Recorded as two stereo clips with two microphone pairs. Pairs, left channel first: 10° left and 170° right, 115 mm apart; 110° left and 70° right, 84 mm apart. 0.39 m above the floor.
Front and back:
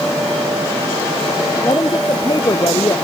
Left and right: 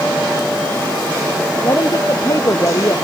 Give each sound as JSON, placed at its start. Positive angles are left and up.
{"t": 1.6, "sound": "a woman speaking", "azimuth_deg": 70}